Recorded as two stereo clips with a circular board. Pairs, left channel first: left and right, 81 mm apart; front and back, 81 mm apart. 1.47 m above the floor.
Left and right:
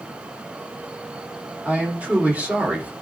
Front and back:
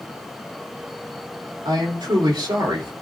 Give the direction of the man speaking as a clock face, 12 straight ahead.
5 o'clock.